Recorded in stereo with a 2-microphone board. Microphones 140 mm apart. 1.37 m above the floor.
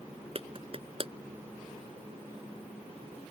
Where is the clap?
45° right (ahead or behind).